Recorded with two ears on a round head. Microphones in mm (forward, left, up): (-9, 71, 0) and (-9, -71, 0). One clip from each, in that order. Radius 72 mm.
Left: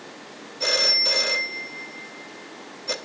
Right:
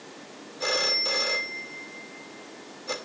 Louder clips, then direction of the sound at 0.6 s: Left 5 dB; 15° left (ahead or behind).